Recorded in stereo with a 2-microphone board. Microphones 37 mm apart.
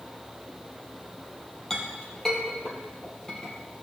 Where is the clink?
10° left (ahead or behind), 2 m.